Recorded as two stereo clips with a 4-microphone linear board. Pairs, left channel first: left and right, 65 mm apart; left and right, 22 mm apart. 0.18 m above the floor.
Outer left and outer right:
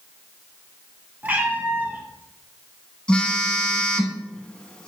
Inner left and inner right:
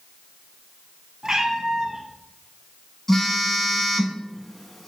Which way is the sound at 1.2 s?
30° right (ahead or behind).